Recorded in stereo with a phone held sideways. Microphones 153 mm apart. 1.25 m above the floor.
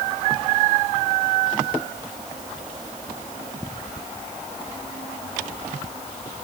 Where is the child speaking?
No child speaking in this recording.